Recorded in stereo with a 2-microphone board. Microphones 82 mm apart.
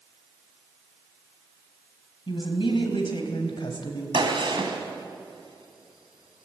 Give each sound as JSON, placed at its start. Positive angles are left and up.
{"t": 2.3, "sound": "a woman speaking", "side_deg": 75, "distance_m": 3.5}
{"t": 4.1, "sound": "a gunshot", "side_deg": -70, "distance_m": 2.5}